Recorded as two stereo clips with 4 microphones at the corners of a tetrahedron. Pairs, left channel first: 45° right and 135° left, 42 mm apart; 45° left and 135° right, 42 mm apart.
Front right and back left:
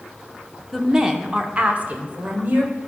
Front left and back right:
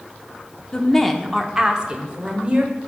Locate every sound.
0.7 s a woman speaking: 65° left, 0.7 m; by 2.8 s 175° left, 1.5 m